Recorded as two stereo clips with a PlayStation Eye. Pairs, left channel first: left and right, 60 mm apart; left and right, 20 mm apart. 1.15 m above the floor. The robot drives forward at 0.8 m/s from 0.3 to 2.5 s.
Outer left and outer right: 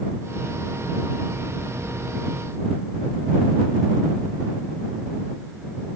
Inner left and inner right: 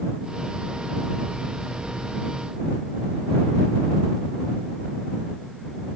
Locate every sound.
Only background noise.